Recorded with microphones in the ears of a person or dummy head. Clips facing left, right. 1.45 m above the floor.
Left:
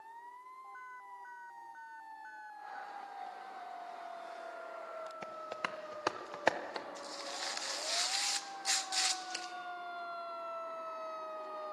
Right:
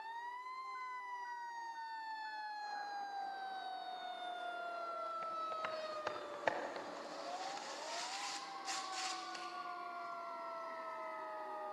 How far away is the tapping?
About 1.1 m.